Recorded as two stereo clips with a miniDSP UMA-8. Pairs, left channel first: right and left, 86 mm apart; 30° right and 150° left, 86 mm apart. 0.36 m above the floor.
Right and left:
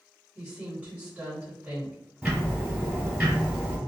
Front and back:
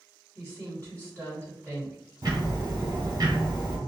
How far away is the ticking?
About 1.1 m.